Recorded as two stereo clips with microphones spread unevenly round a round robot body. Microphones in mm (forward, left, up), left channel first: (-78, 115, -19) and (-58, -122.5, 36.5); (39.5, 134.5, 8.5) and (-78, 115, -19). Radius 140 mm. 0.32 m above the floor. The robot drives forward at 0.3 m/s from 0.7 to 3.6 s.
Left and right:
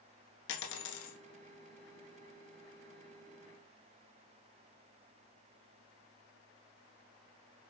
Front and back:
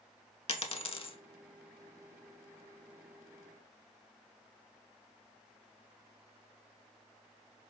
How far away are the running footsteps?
I don't hear running footsteps.